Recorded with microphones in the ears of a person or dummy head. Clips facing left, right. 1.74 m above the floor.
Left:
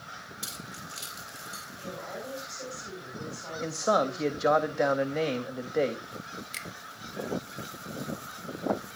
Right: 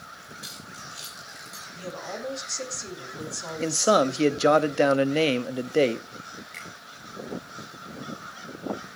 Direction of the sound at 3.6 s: 40° right (ahead or behind).